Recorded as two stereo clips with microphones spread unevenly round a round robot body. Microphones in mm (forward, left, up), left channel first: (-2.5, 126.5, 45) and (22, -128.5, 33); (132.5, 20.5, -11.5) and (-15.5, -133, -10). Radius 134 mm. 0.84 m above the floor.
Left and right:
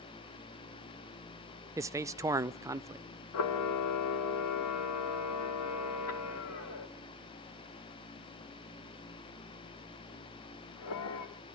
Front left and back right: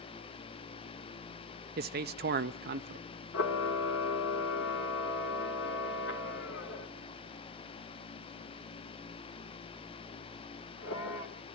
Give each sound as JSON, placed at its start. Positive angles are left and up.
{"t": 1.8, "sound": "a man speaking", "azimuth_deg": -155, "distance_m": 0.5}
{"t": 3.3, "sound": "a camera shutter", "azimuth_deg": 80, "distance_m": 2.0}